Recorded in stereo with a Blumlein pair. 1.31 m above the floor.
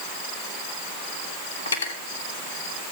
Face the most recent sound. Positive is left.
turn(degrees=65)